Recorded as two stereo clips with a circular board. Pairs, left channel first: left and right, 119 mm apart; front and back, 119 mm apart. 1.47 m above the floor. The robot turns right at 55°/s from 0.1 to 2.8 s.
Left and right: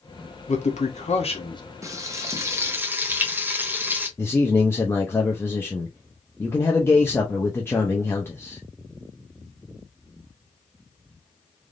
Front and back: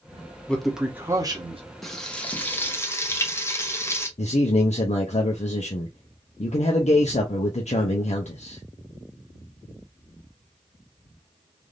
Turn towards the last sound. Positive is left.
turn(degrees=20)